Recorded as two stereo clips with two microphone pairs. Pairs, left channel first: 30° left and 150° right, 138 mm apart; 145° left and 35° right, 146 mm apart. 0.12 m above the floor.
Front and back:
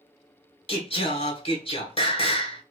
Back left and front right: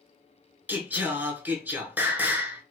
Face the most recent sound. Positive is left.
turn(degrees=30)